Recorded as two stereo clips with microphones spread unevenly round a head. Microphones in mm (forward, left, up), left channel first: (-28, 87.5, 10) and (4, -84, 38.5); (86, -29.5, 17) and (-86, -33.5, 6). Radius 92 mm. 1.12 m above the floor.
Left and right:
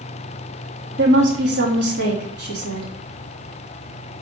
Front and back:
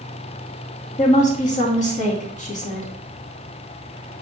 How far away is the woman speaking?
About 2.5 m.